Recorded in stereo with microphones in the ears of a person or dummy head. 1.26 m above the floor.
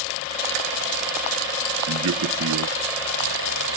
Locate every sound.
1.9 s a man speaking: 80° right